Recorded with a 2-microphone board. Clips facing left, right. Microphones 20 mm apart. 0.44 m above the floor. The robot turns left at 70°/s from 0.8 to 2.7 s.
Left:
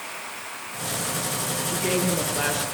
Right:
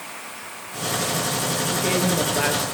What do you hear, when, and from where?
1.7 s a woman speaking: 25° left, 8 m; by 2.6 s 45° right, 8 m